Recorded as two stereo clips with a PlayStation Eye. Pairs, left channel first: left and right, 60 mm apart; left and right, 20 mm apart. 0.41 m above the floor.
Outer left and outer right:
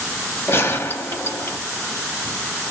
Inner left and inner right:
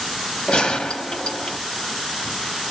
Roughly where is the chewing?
No chewing in this recording.